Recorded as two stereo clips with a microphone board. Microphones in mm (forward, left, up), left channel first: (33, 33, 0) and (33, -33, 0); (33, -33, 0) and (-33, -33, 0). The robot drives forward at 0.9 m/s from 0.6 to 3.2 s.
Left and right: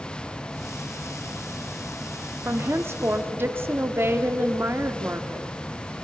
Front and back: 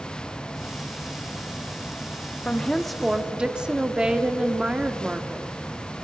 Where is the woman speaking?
60° right, 1.3 m; by 5.5 s 110° right, 1.2 m.